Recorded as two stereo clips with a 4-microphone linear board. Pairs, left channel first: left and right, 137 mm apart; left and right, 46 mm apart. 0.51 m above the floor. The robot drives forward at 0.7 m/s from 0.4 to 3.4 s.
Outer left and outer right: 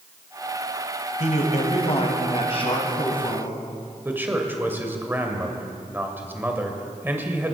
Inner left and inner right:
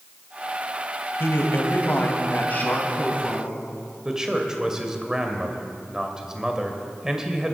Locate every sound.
1.2 s a man speaking: 60° left (ahead or behind), 2.5 m; by 3.6 s 40° left (ahead or behind), 3 m
4.0 s a man speaking: 15° right (ahead or behind), 1.8 m